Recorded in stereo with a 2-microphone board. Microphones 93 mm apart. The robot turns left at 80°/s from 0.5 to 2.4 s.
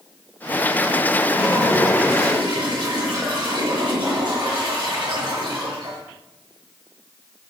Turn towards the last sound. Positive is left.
turn(degrees=-45)